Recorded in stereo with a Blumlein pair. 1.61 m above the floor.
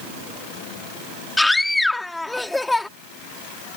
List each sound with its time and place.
1.4 s a scream: 5° left